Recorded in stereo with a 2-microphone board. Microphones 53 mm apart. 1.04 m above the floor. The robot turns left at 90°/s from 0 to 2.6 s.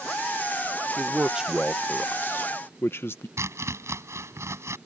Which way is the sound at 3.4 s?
65° right (ahead or behind).